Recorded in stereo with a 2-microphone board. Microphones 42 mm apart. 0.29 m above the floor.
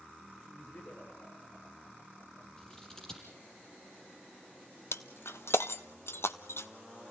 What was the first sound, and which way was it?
Laughter, 45° left (ahead or behind).